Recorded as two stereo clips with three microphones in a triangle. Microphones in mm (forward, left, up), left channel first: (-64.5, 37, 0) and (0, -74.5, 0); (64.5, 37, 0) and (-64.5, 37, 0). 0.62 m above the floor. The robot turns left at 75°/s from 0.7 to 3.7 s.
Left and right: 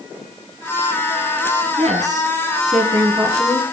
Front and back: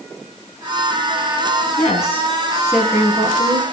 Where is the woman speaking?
15° right, 6.5 m; by 3.6 s 155° right, 6.5 m.